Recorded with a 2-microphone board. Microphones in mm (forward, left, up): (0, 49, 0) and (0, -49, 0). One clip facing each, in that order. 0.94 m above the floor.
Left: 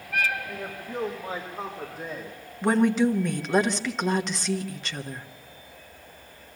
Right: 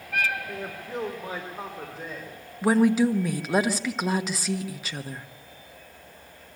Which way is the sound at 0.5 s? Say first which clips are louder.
Even; 30° right (ahead or behind).